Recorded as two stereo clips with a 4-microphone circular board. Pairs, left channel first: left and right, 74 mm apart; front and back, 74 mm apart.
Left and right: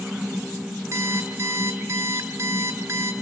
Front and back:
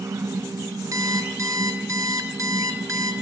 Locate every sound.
0.9 s an alarm clock: 140° right, 4 m